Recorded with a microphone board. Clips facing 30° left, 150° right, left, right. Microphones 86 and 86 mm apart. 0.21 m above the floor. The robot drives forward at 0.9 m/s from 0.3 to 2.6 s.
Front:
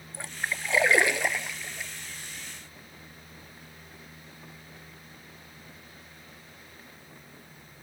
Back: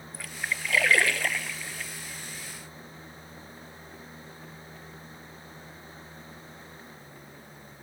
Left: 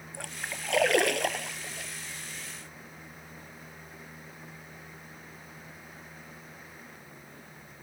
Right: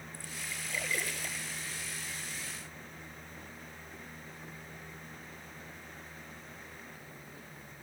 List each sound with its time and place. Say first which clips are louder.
0.1 s a splash: front 1 dB, left 7 dB; 90° left; by 1.9 s 110° left